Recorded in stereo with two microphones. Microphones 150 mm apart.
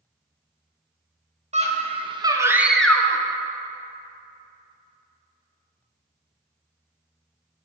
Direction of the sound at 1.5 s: 50° right (ahead or behind).